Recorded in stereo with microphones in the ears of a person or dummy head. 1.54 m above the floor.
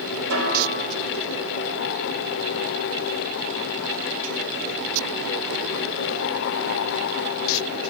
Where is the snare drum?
70° right (ahead or behind), 3 m.